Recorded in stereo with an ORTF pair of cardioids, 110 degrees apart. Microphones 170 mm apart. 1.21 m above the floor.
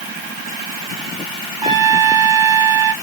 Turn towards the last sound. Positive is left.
turn(degrees=-25)